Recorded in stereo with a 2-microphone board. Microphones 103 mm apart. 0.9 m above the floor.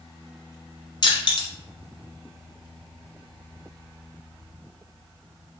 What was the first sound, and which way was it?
Crushing, 50° left (ahead or behind).